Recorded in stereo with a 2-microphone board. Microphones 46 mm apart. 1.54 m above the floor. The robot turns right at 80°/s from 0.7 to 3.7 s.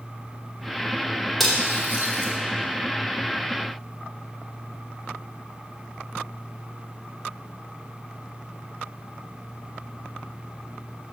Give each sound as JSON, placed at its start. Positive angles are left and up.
{"t": 1.4, "sound": "cutlery clinking", "side_deg": 5, "distance_m": 2.5}